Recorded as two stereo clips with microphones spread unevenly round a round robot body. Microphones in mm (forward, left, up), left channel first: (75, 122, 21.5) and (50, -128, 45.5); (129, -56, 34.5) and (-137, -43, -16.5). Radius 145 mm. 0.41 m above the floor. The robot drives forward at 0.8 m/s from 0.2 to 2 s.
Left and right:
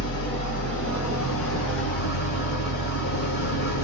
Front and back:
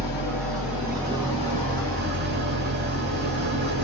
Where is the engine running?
80° left, 1.7 m; by 3.8 s 130° left, 2 m.